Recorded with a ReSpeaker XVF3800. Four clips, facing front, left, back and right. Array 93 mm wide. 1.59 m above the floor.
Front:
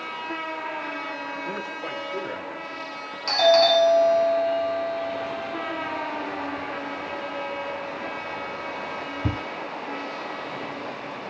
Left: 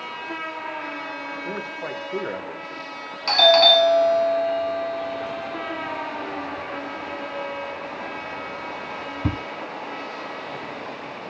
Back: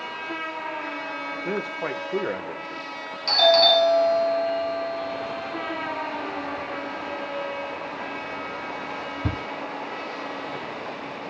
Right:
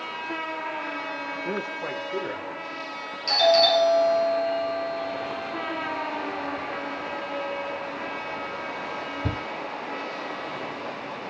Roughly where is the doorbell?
Left.